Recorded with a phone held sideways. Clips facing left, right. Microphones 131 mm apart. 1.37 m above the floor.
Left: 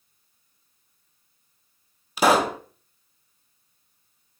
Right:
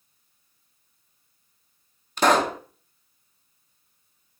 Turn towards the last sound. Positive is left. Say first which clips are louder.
# left 1 dB
turn(degrees=5)  # may be behind; listen again after turning